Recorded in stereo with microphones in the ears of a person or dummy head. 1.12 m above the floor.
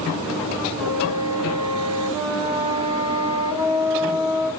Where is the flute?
15° right (ahead or behind), 1.4 m.